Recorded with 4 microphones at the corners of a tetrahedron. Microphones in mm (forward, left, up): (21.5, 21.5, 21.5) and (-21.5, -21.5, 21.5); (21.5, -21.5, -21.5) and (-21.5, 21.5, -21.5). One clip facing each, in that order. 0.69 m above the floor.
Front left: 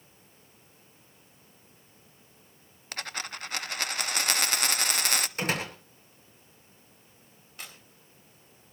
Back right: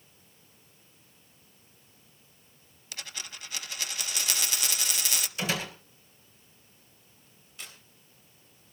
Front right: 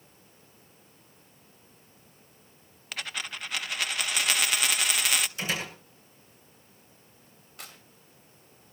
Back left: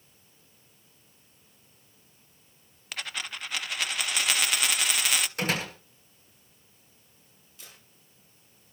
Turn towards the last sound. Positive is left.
turn(degrees=-10)